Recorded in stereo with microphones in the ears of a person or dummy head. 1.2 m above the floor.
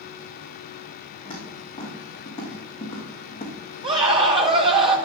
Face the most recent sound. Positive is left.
turn(degrees=-20)  # may be behind; listen again after turning